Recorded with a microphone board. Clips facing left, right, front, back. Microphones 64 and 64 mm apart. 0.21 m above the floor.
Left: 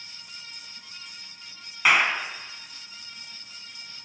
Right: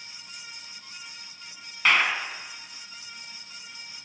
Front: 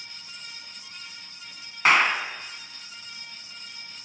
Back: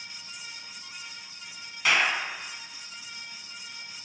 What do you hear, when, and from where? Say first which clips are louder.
1.9 s a clap: left 1 dB, front 4 dB; 15° left, 1.5 m